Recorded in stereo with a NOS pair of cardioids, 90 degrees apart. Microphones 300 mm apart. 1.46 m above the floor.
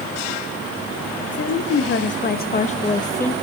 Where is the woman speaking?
55° left, 2.0 m; by 3.4 s 5° left, 1.5 m.